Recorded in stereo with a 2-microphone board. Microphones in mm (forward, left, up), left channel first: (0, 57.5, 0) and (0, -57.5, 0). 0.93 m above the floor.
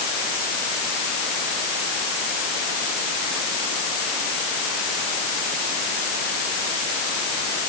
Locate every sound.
Only background noise.